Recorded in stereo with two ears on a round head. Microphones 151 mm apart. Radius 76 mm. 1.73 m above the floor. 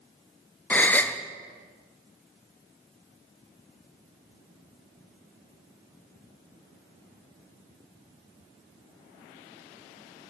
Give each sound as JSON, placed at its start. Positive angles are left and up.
{"t": 0.7, "sound": "a gasp", "side_deg": 10, "distance_m": 1.0}